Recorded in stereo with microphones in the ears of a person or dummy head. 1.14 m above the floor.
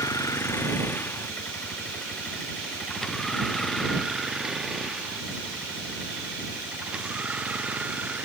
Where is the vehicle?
10° left (ahead or behind); by 8.2 s 10° right (ahead or behind).